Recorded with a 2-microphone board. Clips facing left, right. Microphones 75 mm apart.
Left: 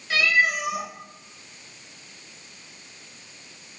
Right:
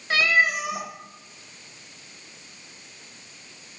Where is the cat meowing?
40° right (ahead or behind), 1.3 m.